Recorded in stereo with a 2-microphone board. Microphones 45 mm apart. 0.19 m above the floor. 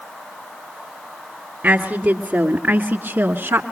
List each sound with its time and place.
1.6 s a woman speaking: 40° right (ahead or behind), 2 m; by 3.6 s 60° right (ahead or behind), 1.7 m